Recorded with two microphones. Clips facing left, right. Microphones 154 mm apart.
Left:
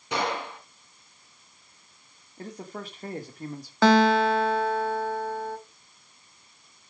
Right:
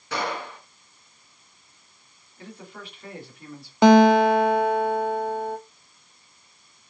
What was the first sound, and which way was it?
A gunshot, 20° left (ahead or behind).